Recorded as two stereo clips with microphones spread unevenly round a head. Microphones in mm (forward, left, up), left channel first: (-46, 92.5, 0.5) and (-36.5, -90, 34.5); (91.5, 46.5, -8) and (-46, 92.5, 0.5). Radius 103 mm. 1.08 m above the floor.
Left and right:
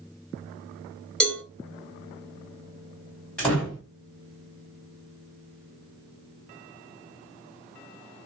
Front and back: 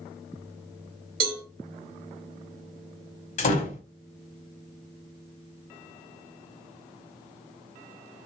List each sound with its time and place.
1.2 s a cowbell: straight behind, 2.5 m
3.4 s a door slam: 5° left, 2.5 m